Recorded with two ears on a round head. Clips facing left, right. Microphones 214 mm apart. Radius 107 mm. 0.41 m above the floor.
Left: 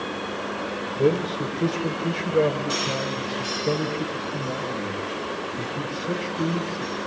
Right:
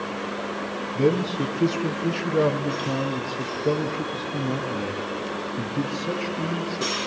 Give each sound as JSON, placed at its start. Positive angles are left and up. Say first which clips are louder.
{"t": 0.9, "sound": "a man speaking", "louder": "even", "side_deg": -60, "distance_m": 5.0}